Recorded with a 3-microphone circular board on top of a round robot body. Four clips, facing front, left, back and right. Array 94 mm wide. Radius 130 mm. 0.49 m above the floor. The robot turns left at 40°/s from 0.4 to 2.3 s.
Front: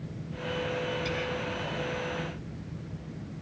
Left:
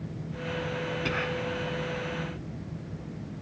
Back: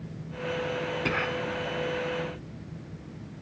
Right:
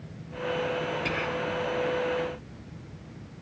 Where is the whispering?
170° left; by 1.5 s 150° left.